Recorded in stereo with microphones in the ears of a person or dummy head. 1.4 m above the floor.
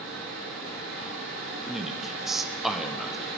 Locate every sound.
0.0 s a fan: 80° right, 5 m
1.7 s a man speaking: centre (ahead or behind), 0.8 m